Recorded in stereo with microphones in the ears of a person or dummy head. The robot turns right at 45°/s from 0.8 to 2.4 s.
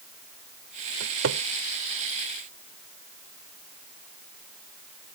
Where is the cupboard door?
85° right; by 1.4 s 75° right (ahead or behind).